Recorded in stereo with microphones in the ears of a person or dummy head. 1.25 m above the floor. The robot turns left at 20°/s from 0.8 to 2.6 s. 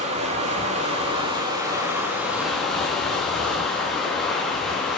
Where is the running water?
145° right, 1.8 m; by 5.0 s 175° left, 1.8 m.